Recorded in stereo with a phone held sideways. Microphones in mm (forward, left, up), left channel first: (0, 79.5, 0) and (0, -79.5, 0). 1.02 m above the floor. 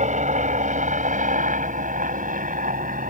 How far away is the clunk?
No clunk in this recording.